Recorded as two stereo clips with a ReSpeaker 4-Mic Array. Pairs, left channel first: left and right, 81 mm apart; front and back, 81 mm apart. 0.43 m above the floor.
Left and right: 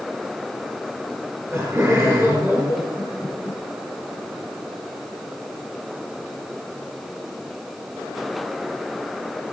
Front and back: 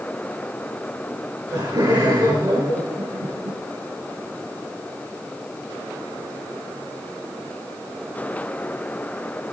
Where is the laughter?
145° right, 6 m.